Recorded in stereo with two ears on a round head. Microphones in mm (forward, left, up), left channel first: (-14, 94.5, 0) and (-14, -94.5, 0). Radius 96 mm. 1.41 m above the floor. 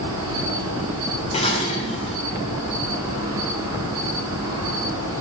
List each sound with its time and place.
0.0 s an insect: 15° right (ahead or behind), 6.5 m
1.3 s dishes clattering: 30° left (ahead or behind), 3 m